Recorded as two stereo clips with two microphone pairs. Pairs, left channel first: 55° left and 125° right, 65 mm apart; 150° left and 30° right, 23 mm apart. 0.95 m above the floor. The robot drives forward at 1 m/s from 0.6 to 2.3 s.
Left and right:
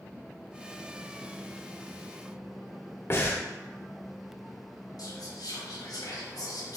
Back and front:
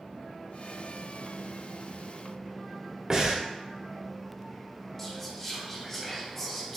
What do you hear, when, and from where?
3.1 s breathing: 25° left, 0.7 m
5.0 s whispering: 70° left, 1.1 m